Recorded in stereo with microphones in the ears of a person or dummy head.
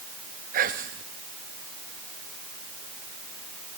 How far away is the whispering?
About 0.7 m.